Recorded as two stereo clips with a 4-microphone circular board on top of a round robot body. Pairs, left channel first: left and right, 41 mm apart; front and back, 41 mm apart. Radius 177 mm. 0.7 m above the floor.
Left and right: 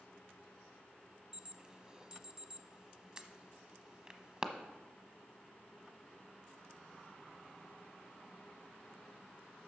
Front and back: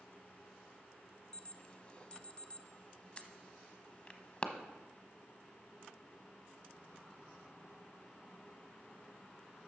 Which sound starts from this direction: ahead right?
An alarm, at 1.3 s.